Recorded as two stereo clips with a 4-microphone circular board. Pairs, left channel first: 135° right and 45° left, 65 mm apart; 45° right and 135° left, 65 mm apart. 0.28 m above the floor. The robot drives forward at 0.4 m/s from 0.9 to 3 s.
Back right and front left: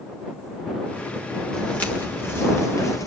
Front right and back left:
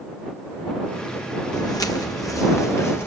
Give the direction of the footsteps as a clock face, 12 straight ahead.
2 o'clock.